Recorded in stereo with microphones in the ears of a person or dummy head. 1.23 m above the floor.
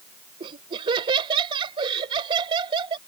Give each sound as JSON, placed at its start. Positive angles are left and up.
{"t": 0.4, "sound": "laughter", "side_deg": -35}